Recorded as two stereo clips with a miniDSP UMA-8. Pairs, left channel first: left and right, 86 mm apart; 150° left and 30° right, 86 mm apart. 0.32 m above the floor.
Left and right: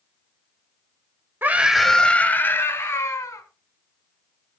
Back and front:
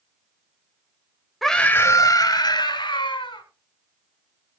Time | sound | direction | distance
1.4 | a scream | 120° right | 0.9 m